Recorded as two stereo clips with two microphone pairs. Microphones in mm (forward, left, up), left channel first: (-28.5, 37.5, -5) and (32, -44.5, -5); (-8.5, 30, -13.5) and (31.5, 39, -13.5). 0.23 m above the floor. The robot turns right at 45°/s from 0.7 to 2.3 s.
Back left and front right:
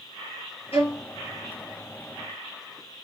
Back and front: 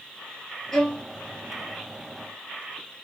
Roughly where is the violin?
Behind left.